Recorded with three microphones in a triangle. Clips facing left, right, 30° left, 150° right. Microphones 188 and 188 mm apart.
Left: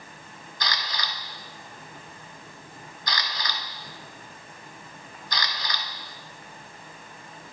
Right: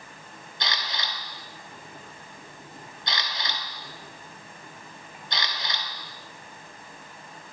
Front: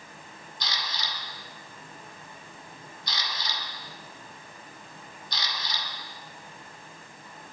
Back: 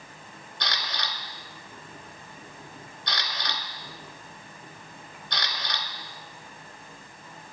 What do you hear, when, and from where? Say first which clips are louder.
0.6 s a camera shutter: left 1 dB, back 2 dB; 155° right, 1.3 m